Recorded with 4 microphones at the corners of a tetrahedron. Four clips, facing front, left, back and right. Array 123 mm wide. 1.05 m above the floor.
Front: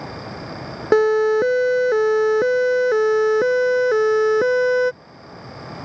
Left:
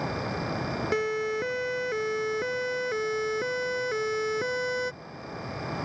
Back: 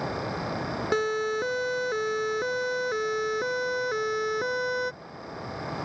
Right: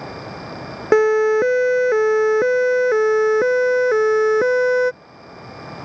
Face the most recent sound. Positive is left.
turn(degrees=-55)